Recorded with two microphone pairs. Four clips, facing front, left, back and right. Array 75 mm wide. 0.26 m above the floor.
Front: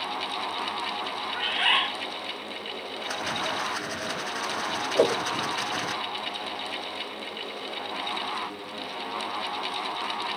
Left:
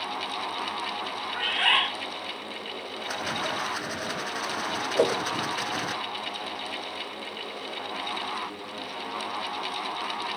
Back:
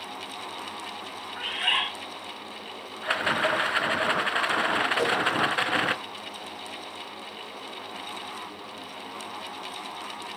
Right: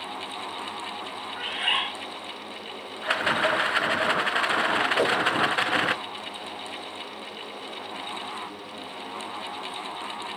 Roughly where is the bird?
Ahead left.